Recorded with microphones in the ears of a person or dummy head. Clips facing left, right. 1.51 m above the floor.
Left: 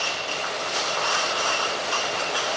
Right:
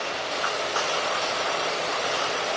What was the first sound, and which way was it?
Only background noise.